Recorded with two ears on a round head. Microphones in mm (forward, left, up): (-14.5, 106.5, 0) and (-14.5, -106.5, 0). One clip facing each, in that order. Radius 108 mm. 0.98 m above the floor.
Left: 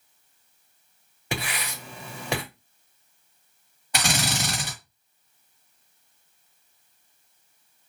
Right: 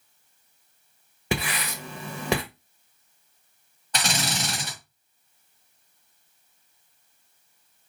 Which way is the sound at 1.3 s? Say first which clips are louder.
Right 4 dB; 65° right (ahead or behind).